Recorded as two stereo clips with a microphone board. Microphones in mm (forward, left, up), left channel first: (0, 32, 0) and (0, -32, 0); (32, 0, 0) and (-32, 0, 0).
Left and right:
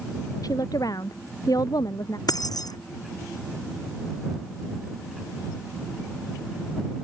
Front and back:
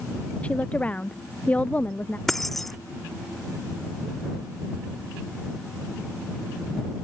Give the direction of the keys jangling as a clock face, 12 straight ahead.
9 o'clock.